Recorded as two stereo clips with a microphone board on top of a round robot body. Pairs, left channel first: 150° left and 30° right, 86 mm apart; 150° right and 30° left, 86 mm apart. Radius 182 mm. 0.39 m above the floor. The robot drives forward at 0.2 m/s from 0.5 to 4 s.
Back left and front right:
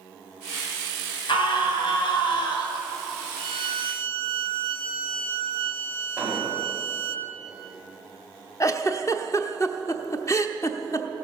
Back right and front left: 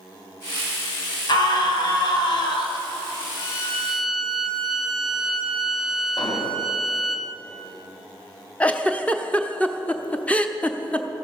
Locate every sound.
1.3 s a scream: 170° left, 3 m; by 2.9 s 175° left, 3.5 m
3.4 s a violin: 45° right, 1.0 m; by 7.2 s 50° right, 0.9 m
6.2 s an explosion: 110° right, 2 m
8.6 s a giggle: 145° left, 1.1 m